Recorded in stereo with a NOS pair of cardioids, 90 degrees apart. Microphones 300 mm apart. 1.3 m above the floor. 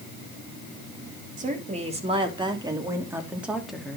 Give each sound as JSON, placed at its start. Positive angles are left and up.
{"t": 1.4, "sound": "a woman speaking", "azimuth_deg": -25, "distance_m": 3.0}